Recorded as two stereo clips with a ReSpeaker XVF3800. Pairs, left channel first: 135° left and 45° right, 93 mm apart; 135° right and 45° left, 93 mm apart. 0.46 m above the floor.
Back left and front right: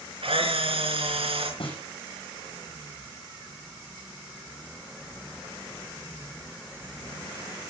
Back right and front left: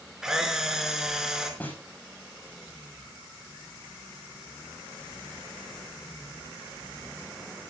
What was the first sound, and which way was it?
A camera shutter, 40° right.